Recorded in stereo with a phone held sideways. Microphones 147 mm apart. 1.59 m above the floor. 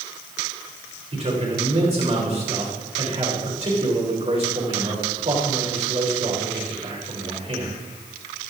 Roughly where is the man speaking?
Right.